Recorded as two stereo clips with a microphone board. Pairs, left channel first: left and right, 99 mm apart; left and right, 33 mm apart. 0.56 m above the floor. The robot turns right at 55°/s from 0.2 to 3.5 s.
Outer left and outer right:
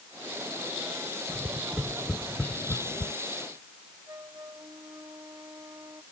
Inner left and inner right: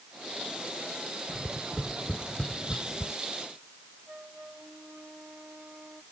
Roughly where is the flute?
Right.